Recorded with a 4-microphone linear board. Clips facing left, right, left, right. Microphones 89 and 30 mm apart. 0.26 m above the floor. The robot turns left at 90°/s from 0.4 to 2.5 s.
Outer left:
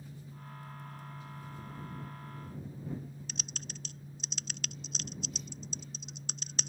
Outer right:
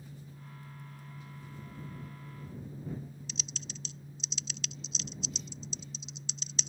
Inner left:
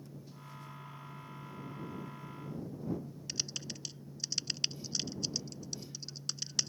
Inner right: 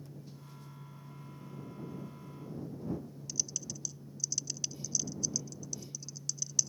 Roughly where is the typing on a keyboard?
Left.